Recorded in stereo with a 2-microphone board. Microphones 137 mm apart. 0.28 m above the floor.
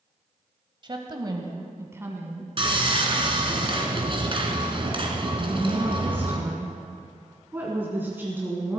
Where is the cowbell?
I don't hear a cowbell.